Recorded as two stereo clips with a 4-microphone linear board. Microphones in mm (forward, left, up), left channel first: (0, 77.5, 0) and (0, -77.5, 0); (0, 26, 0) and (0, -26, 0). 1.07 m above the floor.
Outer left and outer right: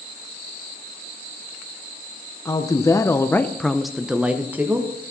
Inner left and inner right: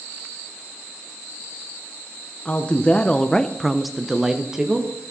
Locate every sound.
2.5 s a woman speaking: 20° left (ahead or behind), 1.0 m; by 4.9 s 10° right (ahead or behind), 1.3 m